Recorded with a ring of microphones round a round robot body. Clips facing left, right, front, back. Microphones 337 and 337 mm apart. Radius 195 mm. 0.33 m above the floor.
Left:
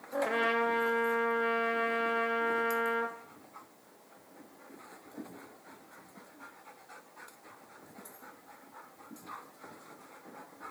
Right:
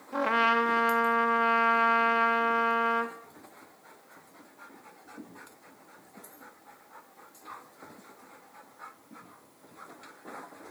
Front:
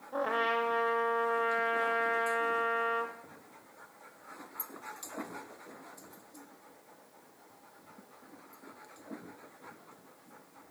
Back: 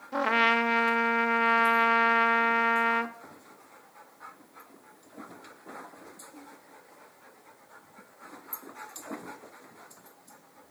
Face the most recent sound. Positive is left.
turn(degrees=-150)